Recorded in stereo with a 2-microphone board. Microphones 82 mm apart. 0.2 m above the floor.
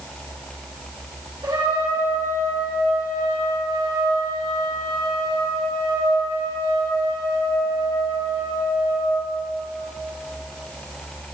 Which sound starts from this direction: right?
A trumpet, at 1.4 s.